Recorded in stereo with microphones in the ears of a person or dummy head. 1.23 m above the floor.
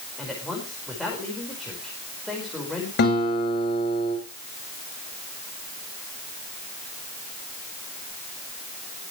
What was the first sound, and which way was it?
A man speaking, centre (ahead or behind).